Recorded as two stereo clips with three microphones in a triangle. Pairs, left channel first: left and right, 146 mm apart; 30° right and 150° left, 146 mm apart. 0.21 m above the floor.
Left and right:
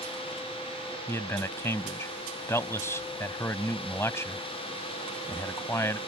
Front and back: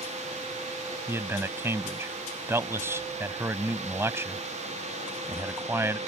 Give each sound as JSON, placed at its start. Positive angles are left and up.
{"t": 1.1, "sound": "a man speaking", "azimuth_deg": 120}